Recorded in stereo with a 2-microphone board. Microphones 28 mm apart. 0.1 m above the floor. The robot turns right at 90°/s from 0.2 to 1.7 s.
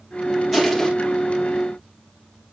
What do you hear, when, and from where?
0.5 s crushing: 5° right, 2.5 m; by 0.9 s 30° left, 2.5 m